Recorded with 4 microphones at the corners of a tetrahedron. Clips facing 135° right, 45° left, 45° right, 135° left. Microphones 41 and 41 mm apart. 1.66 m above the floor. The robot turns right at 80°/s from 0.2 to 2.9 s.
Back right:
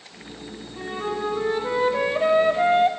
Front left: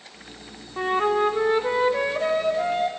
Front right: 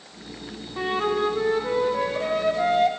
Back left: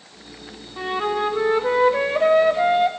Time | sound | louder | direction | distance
0.8 | a flute | front left 7 dB, back left 1 dB | 35° left | 0.6 m